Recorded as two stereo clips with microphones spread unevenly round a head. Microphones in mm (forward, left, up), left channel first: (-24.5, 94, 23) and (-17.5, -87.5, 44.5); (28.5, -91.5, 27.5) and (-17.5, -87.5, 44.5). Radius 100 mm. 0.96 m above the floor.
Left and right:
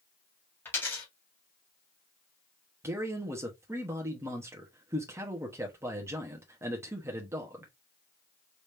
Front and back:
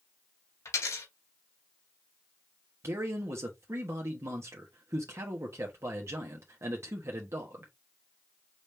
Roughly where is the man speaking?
Behind.